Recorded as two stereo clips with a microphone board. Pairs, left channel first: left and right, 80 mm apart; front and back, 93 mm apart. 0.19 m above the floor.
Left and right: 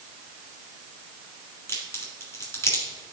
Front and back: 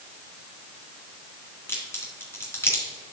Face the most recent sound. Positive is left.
turn(degrees=50)